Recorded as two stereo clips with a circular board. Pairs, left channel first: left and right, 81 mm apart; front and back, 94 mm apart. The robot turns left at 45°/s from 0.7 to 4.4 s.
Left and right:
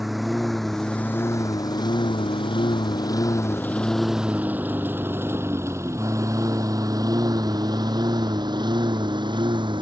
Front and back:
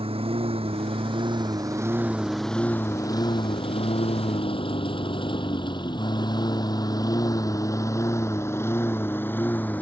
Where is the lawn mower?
Straight behind; by 9.8 s 70° right.